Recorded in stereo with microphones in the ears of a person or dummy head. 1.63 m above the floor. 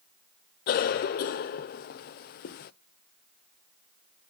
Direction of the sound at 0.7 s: 40° left (ahead or behind).